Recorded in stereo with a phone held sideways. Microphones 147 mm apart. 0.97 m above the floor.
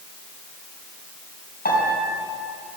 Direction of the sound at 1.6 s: 80° left.